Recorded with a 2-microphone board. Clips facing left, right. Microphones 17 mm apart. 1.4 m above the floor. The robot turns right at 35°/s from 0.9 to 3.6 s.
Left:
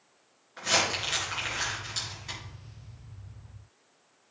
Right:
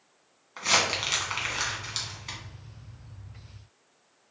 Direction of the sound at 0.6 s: 60° right (ahead or behind).